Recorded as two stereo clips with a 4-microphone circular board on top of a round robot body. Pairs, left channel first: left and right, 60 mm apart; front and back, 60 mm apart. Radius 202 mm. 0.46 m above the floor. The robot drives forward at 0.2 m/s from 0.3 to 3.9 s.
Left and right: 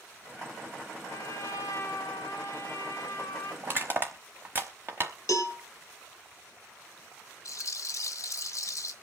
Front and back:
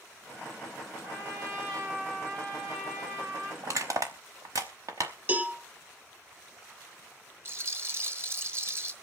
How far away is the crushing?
About 0.9 m.